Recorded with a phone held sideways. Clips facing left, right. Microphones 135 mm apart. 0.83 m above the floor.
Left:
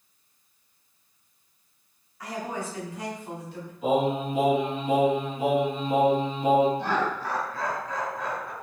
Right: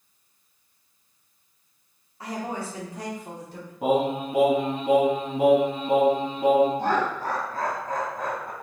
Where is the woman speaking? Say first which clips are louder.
Right 1 dB; 30° right (ahead or behind), 2.5 m; by 3.7 s 45° right (ahead or behind), 3 m.